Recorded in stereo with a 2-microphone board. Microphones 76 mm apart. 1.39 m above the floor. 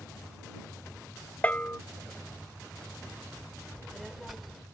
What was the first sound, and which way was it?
A bell, 20° left (ahead or behind).